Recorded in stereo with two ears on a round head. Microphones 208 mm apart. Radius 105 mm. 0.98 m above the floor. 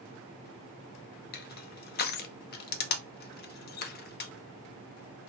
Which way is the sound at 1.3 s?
45° left (ahead or behind).